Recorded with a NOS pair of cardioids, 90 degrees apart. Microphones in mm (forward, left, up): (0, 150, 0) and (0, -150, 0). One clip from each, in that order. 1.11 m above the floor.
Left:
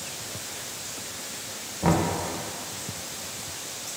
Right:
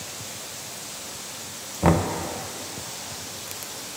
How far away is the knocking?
About 0.6 m.